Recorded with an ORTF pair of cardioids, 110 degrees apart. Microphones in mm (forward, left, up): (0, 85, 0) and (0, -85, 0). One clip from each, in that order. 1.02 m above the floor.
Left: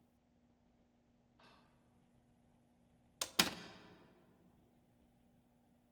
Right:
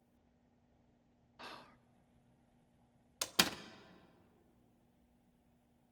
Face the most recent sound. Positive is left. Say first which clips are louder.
# right 2 dB
turn(degrees=-10)